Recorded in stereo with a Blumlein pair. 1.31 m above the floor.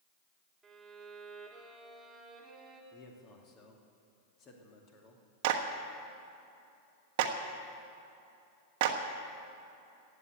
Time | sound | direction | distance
0.6 | a violin | 5° right | 2.5 m
2.9 | a man speaking | 35° left | 2.5 m
5.4 | a clap | 45° right | 1.2 m